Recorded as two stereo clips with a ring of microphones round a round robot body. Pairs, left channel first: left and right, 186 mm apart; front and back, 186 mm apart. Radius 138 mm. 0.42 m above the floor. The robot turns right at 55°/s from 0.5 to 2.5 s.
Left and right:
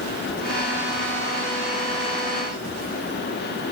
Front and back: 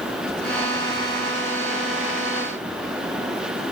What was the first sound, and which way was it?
Only background noise.